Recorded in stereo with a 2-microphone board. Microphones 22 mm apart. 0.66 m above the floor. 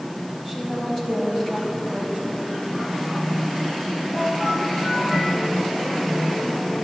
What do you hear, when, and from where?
0.5 s a woman speaking: centre (ahead or behind), 4.5 m